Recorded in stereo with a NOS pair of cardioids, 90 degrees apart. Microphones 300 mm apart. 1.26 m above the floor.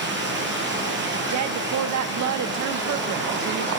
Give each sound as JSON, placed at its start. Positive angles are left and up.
{"t": 0.0, "sound": "running water", "azimuth_deg": -40, "distance_m": 5.0}
{"t": 1.3, "sound": "a woman speaking", "azimuth_deg": -65, "distance_m": 1.4}